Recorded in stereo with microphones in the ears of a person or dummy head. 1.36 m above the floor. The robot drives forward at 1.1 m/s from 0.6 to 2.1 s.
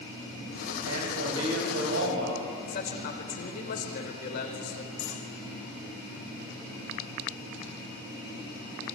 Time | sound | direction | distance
0.8 | a man speaking | 85° right | 9 m
2.7 | a man speaking | 50° left (ahead or behind) | 4 m
5.0 | cutlery clinking | 75° left (ahead or behind) | 6.5 m